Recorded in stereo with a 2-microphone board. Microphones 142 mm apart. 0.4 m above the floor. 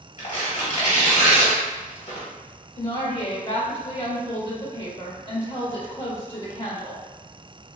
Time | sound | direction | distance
0.2 | tearing paper | 60° left (ahead or behind) | 1.6 m
2.8 | a woman speaking | 45° left (ahead or behind) | 1.7 m